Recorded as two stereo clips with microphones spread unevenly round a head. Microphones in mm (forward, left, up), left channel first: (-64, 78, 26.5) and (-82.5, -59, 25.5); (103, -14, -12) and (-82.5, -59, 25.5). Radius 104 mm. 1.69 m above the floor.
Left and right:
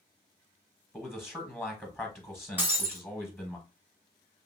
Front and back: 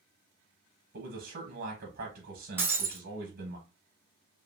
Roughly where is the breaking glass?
Behind right.